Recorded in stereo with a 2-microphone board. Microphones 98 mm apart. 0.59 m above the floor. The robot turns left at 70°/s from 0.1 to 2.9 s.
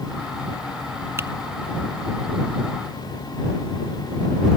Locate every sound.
1.2 s typing on a keyboard: 25° right (ahead or behind); by 1.3 s 35° right (ahead or behind)